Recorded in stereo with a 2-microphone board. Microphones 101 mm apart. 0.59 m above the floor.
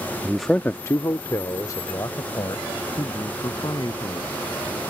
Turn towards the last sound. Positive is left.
turn(degrees=40)  # may be behind; listen again after turning